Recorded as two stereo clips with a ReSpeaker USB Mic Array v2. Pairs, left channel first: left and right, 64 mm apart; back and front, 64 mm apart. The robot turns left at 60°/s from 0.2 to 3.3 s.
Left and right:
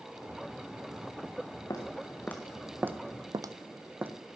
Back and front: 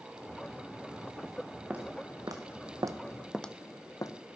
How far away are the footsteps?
About 1.5 m.